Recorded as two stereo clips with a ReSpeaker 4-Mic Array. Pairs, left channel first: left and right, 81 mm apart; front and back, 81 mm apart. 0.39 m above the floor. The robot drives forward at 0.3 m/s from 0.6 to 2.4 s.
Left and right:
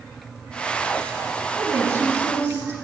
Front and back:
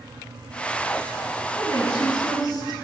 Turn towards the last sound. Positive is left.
turn(degrees=-40)